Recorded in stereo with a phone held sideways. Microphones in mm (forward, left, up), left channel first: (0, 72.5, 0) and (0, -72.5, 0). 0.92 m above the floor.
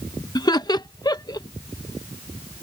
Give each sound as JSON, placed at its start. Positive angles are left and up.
{"t": 0.3, "sound": "laughter", "side_deg": 30}